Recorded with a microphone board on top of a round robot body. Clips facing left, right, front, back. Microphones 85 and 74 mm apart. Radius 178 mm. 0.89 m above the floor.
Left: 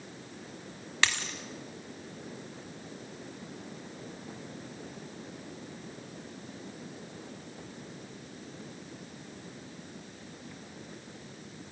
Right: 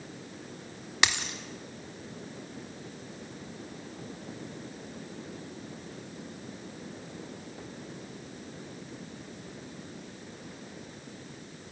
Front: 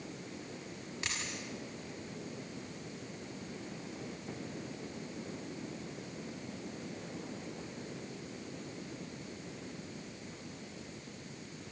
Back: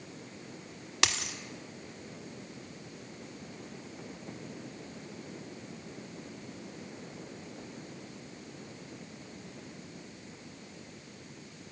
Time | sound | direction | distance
1.0 | a dropped coin | 165° right | 1.3 m